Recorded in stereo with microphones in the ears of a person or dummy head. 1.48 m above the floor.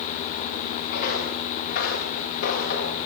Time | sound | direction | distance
0.9 | footsteps | 45° left (ahead or behind) | 8 m